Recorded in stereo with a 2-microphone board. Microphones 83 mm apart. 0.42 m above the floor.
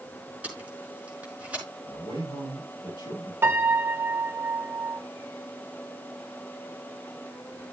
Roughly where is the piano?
Right.